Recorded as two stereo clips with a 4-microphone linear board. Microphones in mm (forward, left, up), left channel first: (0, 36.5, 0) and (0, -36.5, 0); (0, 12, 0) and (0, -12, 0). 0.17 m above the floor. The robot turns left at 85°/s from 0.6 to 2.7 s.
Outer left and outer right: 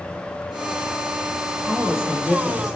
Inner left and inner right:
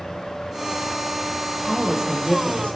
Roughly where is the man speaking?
Behind right.